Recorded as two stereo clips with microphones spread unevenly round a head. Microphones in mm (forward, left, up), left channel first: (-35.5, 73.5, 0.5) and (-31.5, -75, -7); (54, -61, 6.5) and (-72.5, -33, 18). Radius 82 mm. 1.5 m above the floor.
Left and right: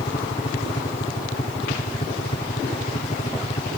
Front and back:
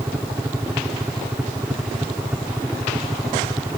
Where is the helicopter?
90° left.